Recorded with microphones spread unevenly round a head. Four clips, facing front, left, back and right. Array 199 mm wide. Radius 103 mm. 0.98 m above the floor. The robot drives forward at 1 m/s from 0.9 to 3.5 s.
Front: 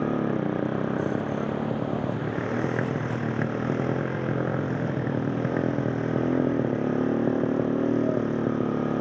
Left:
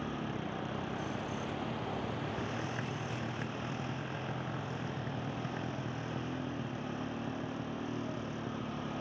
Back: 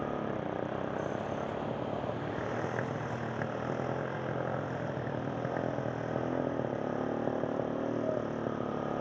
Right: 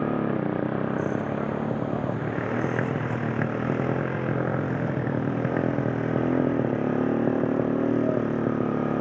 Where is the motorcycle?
40° right; by 9.0 s 45° right.